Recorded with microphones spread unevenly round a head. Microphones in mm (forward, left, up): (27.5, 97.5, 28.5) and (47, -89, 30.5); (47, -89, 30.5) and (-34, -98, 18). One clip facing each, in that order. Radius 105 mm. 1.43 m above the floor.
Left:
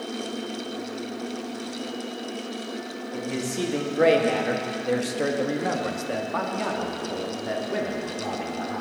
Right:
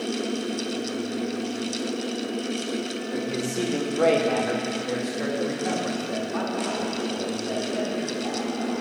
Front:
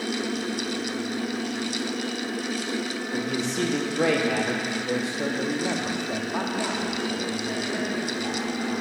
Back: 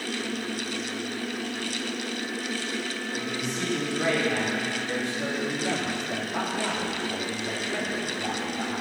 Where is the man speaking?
5° left, 2.5 m; by 8.8 s 105° left, 4 m.